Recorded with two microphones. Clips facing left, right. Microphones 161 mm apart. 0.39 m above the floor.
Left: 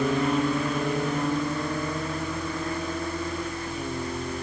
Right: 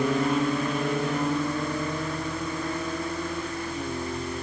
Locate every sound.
Only background noise.